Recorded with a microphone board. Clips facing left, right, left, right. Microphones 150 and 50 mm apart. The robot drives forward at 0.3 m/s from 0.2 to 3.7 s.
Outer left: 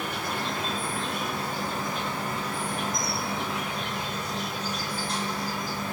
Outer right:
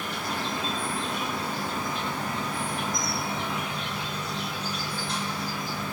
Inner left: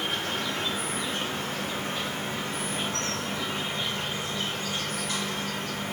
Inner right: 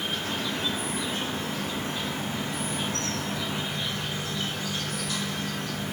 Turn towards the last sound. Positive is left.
turn(degrees=50)  # may be behind; listen again after turning